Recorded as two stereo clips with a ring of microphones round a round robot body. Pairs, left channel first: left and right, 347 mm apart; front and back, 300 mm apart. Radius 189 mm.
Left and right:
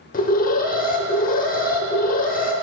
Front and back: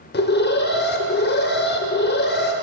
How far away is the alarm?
About 0.7 m.